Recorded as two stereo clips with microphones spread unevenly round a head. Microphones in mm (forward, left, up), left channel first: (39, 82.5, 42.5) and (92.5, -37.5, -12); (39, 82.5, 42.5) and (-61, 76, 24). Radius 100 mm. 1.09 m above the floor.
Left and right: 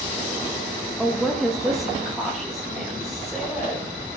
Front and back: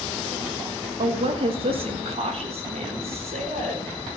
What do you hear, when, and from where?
1.0 s a woman speaking: 145° right, 1.1 m; by 3.9 s 155° right, 5 m